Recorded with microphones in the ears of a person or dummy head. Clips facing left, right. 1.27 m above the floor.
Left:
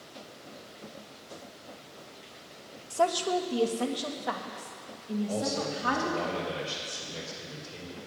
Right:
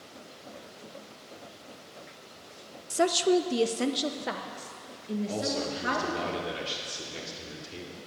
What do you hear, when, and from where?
2.9 s a woman speaking: 20° right (ahead or behind), 0.5 m; by 6.3 s 30° right (ahead or behind), 2 m
5.3 s a man speaking: 45° right (ahead or behind), 3 m